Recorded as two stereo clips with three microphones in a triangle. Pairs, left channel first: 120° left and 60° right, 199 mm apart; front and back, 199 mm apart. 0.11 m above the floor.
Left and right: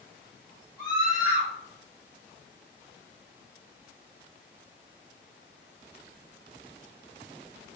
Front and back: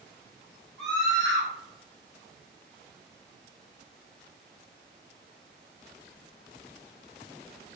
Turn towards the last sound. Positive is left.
turn(degrees=80)